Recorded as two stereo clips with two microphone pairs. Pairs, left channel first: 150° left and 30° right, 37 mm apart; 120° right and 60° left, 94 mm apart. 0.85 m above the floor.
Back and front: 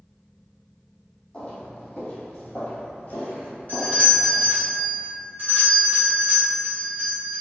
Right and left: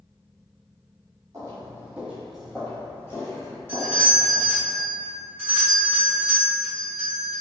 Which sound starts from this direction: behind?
A doorbell, at 3.7 s.